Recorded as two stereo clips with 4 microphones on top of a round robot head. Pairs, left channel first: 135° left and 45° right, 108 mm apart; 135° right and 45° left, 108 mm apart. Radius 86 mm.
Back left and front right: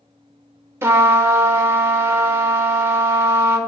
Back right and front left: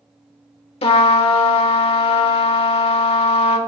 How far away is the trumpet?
About 1.2 m.